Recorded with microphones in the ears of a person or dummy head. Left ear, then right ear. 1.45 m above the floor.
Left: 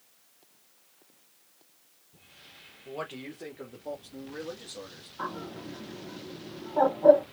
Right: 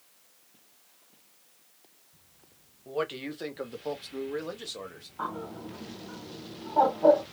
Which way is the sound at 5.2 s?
5° right (ahead or behind).